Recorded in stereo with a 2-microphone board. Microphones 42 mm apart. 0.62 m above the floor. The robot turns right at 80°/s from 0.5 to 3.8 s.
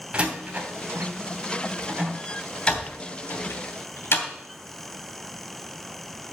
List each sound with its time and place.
0.1 s a door slam: 30° right (ahead or behind), 2.5 m; by 4.3 s 65° left (ahead or behind), 2.5 m